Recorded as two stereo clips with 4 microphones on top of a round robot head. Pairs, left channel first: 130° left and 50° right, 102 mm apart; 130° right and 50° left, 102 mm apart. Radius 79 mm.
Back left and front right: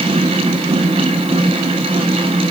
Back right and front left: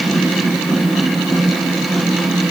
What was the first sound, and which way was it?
Only background noise.